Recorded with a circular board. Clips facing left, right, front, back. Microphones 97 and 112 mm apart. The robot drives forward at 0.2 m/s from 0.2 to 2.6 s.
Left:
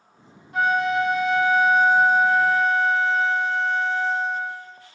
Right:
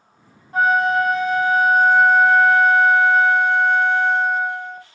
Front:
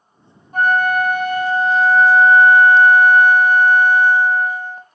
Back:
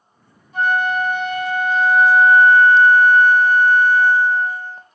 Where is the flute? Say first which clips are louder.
Right 4 dB, front 3 dB; 40° right, 0.7 m; by 4.8 s 70° right, 0.5 m.